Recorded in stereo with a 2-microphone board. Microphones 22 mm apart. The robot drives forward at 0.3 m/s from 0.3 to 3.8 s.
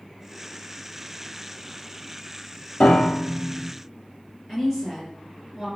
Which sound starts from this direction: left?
A piano, at 2.8 s.